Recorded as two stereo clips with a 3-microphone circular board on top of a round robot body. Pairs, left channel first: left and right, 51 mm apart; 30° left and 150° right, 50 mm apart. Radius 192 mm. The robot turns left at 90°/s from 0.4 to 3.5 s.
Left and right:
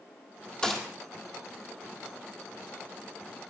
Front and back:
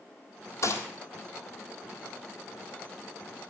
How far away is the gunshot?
About 3.5 m.